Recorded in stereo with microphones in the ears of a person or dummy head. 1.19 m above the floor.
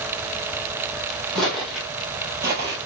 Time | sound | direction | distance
1.4 | footsteps | 5° left (ahead or behind) | 2.5 m